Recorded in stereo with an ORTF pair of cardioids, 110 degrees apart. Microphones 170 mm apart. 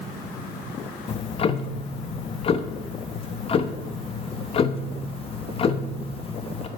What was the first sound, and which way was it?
Ticking, 35° left.